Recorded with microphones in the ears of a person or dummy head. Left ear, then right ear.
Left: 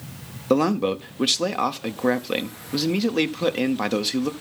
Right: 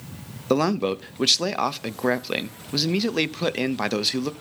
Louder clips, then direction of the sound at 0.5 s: Left 1 dB; 15° right (ahead or behind).